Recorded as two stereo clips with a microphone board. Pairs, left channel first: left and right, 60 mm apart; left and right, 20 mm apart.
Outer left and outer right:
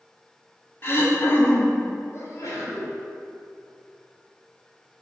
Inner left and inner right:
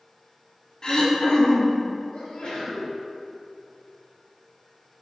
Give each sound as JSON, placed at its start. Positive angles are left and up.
{"t": 0.8, "sound": "throat clearing", "side_deg": 40, "distance_m": 1.2}
{"t": 2.1, "sound": "a sneeze", "side_deg": 55, "distance_m": 2.5}